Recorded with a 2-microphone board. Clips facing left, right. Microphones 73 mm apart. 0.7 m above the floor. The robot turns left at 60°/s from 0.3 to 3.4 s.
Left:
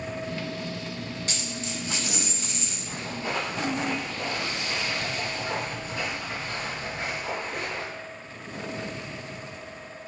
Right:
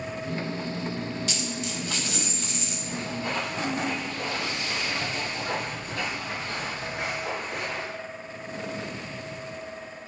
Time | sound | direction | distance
1.3 | a dropped coin | 75° left | 0.6 m
2.9 | footsteps | 45° left (ahead or behind) | 1.6 m